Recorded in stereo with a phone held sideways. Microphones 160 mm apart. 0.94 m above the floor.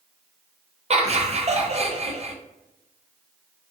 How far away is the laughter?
About 0.5 m.